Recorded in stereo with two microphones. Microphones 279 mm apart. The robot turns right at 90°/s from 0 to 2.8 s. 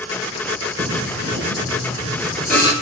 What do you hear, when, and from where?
0.8 s singing: 145° right, 2.5 m; by 2.7 s 25° left, 2.5 m